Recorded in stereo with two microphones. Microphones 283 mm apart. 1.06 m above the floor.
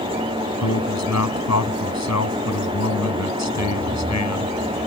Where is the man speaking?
70° left (ahead or behind).